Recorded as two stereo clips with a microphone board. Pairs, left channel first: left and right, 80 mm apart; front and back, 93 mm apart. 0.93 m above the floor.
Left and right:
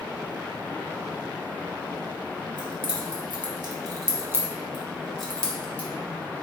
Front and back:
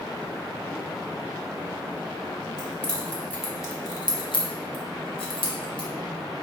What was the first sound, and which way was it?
Keys jangling, 85° right.